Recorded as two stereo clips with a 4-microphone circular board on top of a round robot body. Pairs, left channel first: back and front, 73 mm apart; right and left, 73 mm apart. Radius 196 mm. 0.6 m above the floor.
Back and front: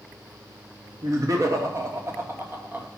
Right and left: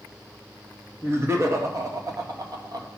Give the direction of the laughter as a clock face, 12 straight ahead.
11 o'clock.